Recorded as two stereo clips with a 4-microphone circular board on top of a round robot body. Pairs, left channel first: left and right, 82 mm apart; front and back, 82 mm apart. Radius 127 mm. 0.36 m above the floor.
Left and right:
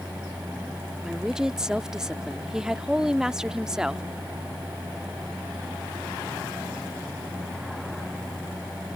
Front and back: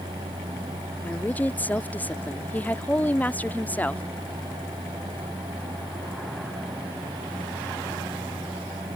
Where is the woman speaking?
20° right.